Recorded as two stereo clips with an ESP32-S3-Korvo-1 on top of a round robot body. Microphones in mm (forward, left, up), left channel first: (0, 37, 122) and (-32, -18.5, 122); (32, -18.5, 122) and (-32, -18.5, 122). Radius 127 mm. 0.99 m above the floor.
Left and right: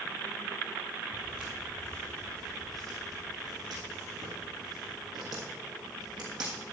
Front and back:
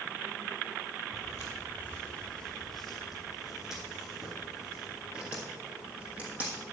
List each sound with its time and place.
1.1 s footsteps: 30° right, 1.2 m; by 6.6 s 115° right, 3 m